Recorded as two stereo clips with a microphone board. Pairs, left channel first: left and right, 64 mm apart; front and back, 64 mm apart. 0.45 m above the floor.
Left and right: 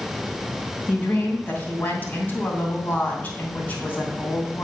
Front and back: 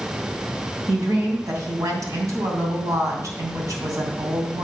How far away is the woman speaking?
About 2.5 m.